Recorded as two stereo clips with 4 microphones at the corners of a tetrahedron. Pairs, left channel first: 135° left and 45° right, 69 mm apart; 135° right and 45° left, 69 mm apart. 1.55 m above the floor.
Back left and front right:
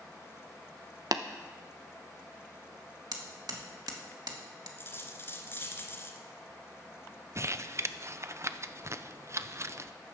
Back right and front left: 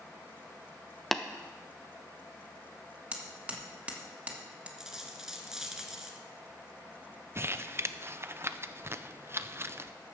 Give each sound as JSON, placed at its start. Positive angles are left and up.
{"t": 1.1, "sound": "tapping", "azimuth_deg": -50, "distance_m": 0.8}
{"t": 3.1, "sound": "hammering", "azimuth_deg": -25, "distance_m": 1.7}
{"t": 4.8, "sound": "a dropped coin", "azimuth_deg": 120, "distance_m": 1.8}
{"t": 7.3, "sound": "crumpling", "azimuth_deg": -5, "distance_m": 0.5}